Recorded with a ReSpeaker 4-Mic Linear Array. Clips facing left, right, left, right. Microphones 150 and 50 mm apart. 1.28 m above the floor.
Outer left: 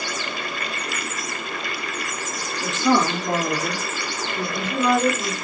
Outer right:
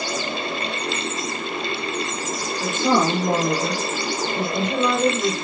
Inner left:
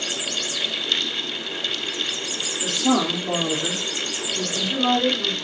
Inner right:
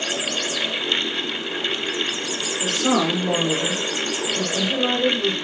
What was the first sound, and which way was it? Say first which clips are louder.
A woman speaking: even, inner right 1 dB; 55° right (ahead or behind).